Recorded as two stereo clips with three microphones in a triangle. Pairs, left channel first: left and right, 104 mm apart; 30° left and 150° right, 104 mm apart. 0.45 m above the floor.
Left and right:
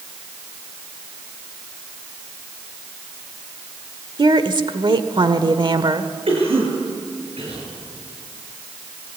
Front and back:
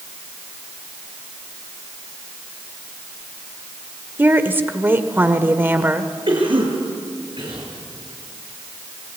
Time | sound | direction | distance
4.2 | a woman speaking | 85° right | 1.4 m
6.3 | a cough | 115° right | 8 m